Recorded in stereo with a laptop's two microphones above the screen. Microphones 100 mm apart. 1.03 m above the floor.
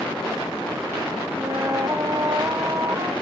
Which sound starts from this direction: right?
A flute, at 1.4 s.